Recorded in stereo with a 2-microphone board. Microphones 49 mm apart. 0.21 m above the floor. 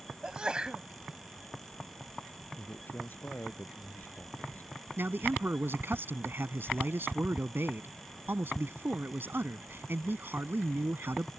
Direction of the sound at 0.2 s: 20° right (ahead or behind).